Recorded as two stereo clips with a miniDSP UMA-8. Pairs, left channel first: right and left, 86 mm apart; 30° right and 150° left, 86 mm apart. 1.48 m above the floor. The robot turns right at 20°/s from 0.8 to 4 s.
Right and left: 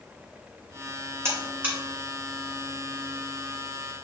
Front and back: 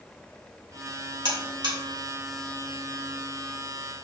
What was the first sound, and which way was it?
A buzzer, 150° left.